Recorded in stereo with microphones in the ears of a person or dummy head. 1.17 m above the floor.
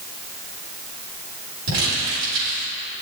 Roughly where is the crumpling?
Right.